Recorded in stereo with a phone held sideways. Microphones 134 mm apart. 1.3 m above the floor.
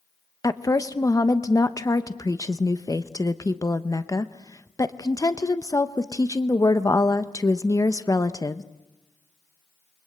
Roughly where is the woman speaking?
Left.